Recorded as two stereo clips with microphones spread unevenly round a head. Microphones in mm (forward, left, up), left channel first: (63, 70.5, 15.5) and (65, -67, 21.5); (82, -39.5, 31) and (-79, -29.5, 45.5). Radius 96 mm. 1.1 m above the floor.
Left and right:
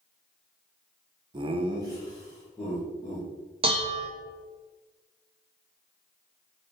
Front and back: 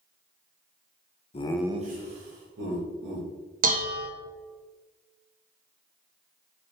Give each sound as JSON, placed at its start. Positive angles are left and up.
{"t": 1.3, "sound": "laughter", "azimuth_deg": -40, "distance_m": 0.7}
{"t": 3.6, "sound": "dishes clattering", "azimuth_deg": -150, "distance_m": 0.5}